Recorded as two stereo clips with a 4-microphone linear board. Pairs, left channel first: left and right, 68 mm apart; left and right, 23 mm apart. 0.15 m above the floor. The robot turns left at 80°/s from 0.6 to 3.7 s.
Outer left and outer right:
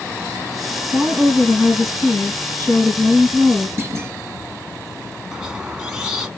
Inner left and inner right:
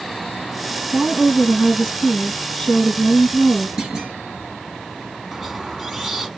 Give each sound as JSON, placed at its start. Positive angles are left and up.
{"t": 0.9, "sound": "a woman speaking", "azimuth_deg": -170, "distance_m": 3.5}
{"t": 3.8, "sound": "a clunk", "side_deg": -35, "distance_m": 2.5}
{"t": 5.3, "sound": "a squeak", "side_deg": -10, "distance_m": 1.0}